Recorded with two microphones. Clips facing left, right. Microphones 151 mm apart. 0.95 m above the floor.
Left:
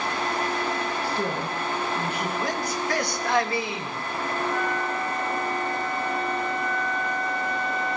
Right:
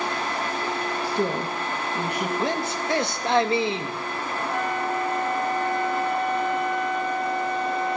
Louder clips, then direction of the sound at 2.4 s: Right 2 dB; 25° right (ahead or behind).